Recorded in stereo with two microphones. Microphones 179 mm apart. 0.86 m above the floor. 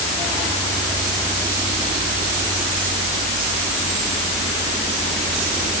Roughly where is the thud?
I don't hear a thud.